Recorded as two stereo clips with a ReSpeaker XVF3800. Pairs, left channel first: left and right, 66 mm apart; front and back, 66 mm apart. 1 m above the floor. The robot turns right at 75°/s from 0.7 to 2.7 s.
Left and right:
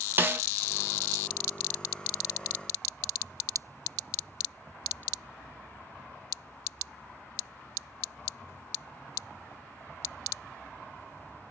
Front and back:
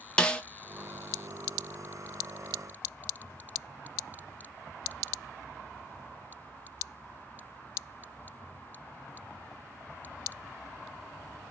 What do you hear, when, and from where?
0.2 s a snare drum: 65° right, 0.6 m